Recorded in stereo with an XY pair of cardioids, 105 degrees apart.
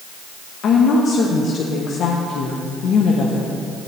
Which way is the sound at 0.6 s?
65° left.